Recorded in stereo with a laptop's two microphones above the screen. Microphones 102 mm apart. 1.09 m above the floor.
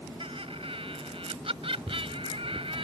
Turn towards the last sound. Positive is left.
turn(degrees=-80)